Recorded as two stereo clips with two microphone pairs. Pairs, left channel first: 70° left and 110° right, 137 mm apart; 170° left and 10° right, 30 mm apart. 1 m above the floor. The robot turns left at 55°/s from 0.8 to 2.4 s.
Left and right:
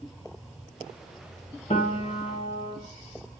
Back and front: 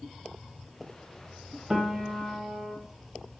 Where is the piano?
65° left, 1.1 m; by 2.8 s 25° left, 1.1 m.